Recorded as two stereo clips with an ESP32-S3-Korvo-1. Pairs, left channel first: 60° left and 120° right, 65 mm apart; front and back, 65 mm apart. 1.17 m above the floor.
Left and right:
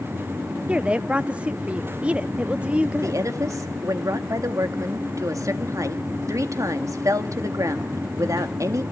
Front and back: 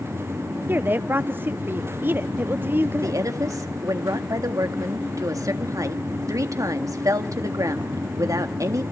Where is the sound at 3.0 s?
150° right, 1.6 m.